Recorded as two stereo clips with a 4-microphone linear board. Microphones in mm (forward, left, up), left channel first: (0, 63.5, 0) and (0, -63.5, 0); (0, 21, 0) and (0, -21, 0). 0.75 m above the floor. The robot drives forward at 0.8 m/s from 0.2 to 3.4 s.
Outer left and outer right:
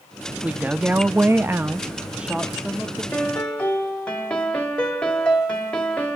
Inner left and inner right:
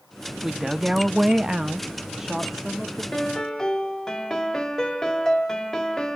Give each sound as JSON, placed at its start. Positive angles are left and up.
{"t": 0.4, "sound": "a woman speaking", "side_deg": -10, "distance_m": 0.8}
{"t": 3.1, "sound": "a piano", "side_deg": 5, "distance_m": 2.0}